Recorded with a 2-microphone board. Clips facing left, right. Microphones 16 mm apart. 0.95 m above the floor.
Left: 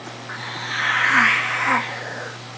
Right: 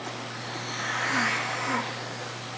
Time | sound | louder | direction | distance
0.3 | a hiss | left 6 dB | 80° left | 0.8 m